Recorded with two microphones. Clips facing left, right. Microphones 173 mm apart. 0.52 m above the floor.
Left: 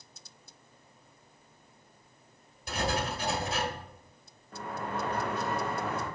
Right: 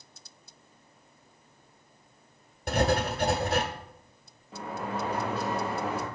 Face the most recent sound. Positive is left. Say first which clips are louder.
# right 2 dB
turn(degrees=-10)  # may be behind; listen again after turning